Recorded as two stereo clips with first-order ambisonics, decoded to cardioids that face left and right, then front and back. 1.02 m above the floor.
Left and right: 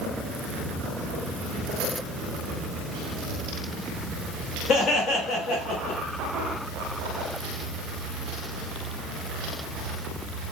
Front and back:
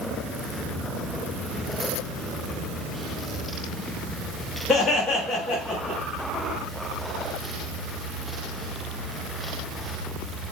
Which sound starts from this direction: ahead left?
Laughter, at 4.7 s.